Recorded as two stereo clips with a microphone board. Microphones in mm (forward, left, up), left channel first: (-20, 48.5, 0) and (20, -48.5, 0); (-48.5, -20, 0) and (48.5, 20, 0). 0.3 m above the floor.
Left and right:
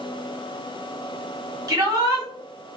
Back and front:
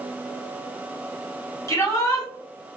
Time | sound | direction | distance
1.7 | a shout | 110° right | 1.2 m